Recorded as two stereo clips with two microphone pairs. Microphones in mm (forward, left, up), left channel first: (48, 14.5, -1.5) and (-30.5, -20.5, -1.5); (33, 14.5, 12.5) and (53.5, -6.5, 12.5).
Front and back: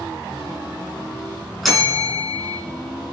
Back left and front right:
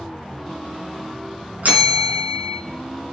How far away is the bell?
About 4.5 m.